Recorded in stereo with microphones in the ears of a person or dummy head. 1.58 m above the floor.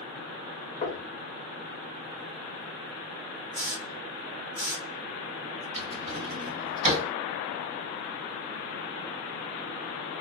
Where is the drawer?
40° right (ahead or behind), 1.5 m.